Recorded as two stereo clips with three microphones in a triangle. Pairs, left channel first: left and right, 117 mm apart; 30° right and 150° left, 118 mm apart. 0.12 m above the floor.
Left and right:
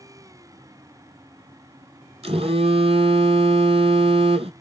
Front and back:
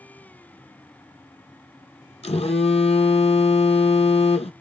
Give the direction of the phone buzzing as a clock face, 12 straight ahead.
2 o'clock.